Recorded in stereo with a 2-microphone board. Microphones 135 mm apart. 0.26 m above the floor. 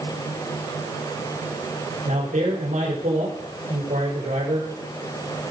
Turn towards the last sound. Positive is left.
turn(degrees=-70)  # may be behind; listen again after turning